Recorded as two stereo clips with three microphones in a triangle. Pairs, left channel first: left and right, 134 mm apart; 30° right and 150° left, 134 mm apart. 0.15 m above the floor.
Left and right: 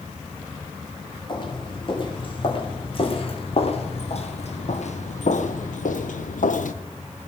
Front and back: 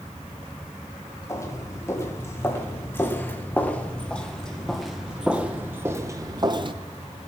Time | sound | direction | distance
1.3 | footsteps | 40° left | 3.5 m